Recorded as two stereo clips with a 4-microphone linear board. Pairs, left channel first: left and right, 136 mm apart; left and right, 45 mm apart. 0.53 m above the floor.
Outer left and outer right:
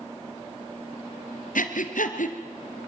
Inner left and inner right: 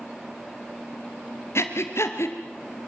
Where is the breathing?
80° left, 2.5 m.